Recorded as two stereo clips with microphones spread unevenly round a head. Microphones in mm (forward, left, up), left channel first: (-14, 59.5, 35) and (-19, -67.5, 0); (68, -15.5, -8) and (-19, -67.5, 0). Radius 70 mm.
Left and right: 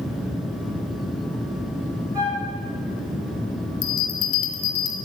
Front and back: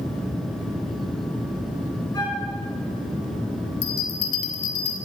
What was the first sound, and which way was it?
A flute, 15° right.